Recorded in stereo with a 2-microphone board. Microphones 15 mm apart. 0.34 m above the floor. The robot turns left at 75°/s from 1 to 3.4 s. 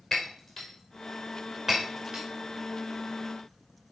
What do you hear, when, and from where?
0.1 s breaking glass: 30° left (ahead or behind), 4 m; by 2.2 s 60° right (ahead or behind), 4 m